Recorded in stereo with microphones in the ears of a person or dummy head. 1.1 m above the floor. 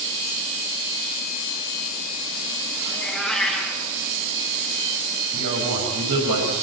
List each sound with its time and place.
2.9 s a cat meowing: 5° left (ahead or behind), 4 m
5.3 s a man speaking: 70° right (ahead or behind), 6.5 m